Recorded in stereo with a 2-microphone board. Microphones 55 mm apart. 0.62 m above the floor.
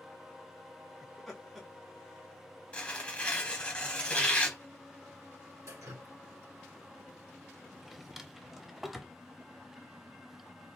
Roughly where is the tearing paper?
Left.